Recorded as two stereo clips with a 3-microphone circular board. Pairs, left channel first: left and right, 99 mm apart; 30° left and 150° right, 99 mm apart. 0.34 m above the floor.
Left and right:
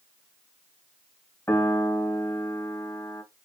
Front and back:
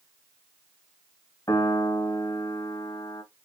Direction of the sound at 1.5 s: 35° left.